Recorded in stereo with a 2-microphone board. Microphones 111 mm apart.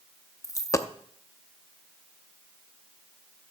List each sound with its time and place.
0.4 s a dropped coin: 30° left (ahead or behind), 0.6 m